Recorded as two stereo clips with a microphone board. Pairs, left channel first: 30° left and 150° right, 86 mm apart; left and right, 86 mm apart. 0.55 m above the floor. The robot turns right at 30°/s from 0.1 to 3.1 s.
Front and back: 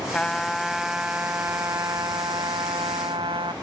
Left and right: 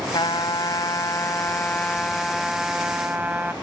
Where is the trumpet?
110° left; by 3.5 s 160° right.